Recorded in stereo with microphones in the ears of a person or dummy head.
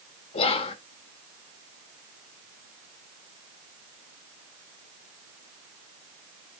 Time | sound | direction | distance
0.3 | whispering | 35° left (ahead or behind) | 0.5 m